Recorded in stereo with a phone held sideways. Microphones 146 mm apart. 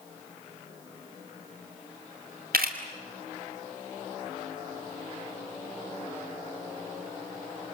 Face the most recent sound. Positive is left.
turn(degrees=-90)